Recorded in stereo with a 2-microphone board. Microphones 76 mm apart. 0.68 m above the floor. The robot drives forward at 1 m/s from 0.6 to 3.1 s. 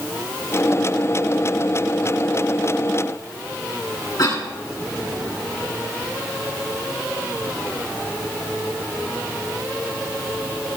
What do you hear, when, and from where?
4.2 s a cough: 55° left (ahead or behind), 7.5 m